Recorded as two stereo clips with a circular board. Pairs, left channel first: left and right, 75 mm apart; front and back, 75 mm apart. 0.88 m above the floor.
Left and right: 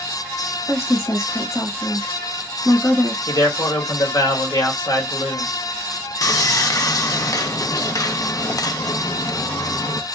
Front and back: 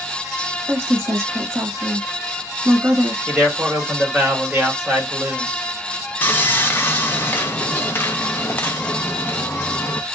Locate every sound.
0.7 s a woman speaking: 125° left, 1.4 m
3.3 s a man speaking: 100° left, 1.9 m
6.2 s sawing: 60° left, 0.6 m